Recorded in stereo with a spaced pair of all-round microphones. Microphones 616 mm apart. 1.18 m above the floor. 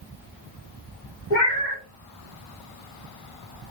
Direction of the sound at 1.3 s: 60° left (ahead or behind).